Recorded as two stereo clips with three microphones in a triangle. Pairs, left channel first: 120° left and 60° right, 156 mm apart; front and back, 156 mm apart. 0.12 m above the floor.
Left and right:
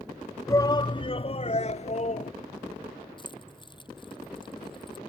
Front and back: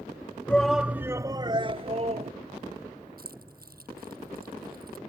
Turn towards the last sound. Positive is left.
turn(degrees=175)